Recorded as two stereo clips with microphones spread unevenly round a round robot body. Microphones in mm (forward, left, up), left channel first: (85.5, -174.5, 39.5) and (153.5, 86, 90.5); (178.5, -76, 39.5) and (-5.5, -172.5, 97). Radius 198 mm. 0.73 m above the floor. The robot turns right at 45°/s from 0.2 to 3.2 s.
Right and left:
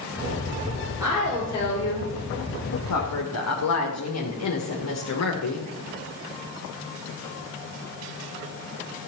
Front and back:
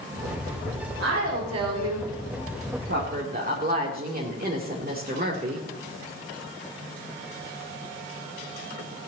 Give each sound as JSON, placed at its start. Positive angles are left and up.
{"t": 1.0, "sound": "a woman speaking", "azimuth_deg": 160, "distance_m": 2.5}